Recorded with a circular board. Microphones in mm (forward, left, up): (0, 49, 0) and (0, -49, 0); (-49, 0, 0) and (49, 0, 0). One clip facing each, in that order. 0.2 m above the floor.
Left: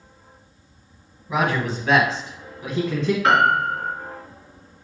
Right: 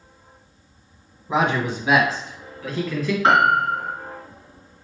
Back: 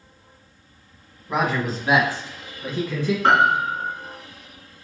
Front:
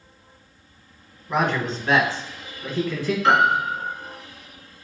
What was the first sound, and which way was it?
A man speaking, 95° right.